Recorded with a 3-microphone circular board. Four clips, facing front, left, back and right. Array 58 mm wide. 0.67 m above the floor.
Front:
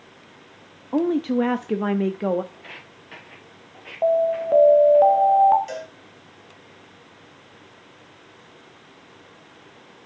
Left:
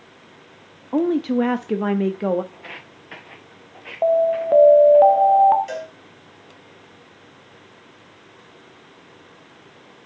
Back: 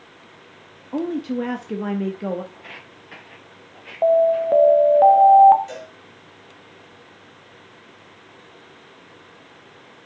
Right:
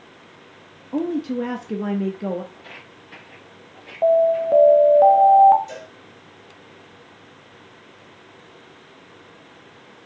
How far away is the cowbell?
About 2.5 m.